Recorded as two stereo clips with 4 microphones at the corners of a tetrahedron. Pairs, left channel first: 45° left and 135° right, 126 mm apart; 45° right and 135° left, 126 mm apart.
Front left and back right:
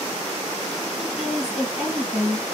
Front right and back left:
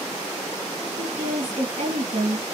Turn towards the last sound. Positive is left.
turn(degrees=140)